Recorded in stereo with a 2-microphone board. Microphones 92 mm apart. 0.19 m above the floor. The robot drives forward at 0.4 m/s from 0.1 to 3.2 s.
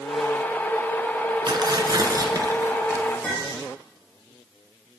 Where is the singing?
No singing in this recording.